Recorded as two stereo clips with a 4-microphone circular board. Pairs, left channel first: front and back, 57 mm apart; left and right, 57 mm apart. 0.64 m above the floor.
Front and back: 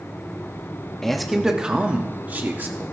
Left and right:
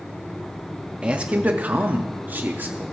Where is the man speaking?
70° right, 0.9 m; by 2.9 s 135° right, 1.5 m.